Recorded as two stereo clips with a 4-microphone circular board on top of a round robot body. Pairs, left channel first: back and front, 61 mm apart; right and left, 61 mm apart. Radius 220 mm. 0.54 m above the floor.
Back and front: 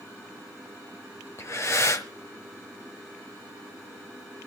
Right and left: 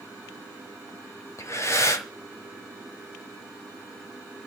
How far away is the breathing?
About 1.1 m.